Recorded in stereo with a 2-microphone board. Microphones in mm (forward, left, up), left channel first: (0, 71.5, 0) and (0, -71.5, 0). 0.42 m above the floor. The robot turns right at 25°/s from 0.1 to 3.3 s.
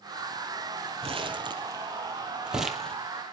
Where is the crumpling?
40° right (ahead or behind), 2 m; by 3.0 s 5° left (ahead or behind), 2 m.